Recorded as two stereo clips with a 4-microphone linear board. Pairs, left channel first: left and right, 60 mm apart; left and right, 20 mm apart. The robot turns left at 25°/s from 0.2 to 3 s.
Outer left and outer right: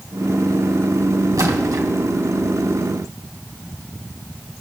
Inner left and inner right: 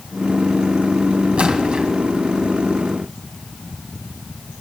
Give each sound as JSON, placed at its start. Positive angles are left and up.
{"t": 1.4, "sound": "a splash", "side_deg": -70, "distance_m": 3.0}